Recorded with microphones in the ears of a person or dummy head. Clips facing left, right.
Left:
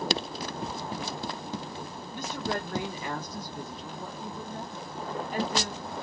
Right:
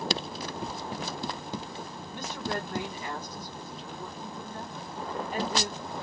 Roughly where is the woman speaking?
Left.